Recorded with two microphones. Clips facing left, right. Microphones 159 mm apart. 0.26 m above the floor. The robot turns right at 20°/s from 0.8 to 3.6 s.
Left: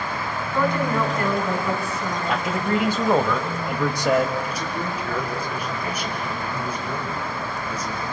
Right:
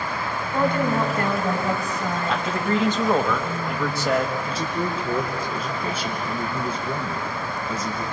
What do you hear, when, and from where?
0.5 s a woman speaking: 145° right, 2.5 m; by 2.5 s 115° right, 2.5 m
2.3 s a man speaking: 5° left (ahead or behind), 1.0 m; by 4.3 s 15° left (ahead or behind), 1.0 m
4.4 s a man speaking: 25° right (ahead or behind), 3 m